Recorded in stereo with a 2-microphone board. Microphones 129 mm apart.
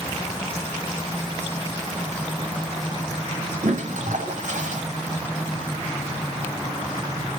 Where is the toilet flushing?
70° right (ahead or behind), 1.1 m.